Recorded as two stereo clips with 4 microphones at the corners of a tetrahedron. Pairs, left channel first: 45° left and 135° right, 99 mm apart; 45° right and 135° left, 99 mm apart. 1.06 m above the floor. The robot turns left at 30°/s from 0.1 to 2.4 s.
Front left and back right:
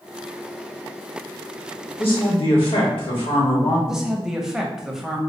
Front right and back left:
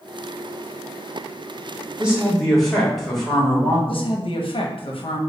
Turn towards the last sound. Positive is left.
turn(degrees=-50)